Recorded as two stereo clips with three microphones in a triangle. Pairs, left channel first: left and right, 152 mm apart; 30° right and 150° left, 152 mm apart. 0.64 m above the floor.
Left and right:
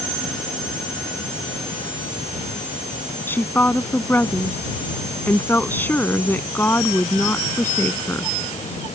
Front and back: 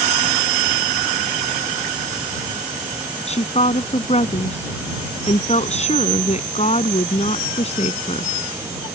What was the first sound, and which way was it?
A woman speaking, 15° left.